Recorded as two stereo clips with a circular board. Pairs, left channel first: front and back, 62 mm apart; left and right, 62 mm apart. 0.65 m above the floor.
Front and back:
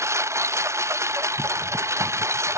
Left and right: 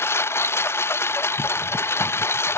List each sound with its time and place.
0.0 s a lawn mower: 140° left